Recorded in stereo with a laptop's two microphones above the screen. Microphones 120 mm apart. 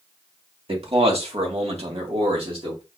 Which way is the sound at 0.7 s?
50° right (ahead or behind).